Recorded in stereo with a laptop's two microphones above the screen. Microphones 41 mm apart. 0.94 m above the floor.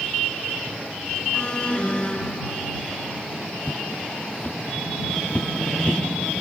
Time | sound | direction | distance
1.3 | an alarm | 25° left (ahead or behind) | ?
3.6 | footsteps | 50° left (ahead or behind) | ?